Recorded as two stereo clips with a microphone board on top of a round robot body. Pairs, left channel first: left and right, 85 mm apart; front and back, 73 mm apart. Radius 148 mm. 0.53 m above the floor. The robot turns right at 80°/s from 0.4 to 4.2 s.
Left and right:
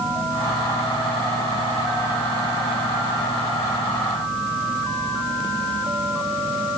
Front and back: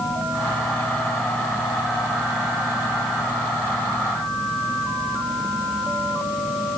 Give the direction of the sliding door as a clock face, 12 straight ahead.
I don't hear a sliding door.